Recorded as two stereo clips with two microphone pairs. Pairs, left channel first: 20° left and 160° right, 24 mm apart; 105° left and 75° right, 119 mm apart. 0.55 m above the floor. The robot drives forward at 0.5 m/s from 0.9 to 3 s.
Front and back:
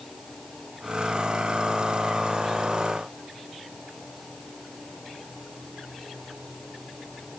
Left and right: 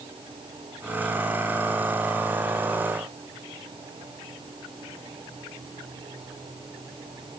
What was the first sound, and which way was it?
Only background noise.